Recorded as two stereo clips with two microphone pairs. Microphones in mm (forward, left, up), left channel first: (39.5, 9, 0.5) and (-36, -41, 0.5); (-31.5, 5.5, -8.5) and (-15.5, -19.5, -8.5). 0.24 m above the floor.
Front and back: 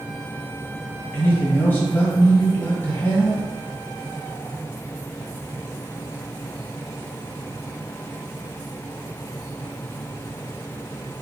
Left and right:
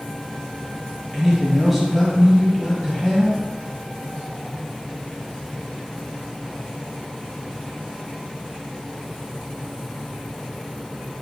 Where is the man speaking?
30° left, 1.3 m.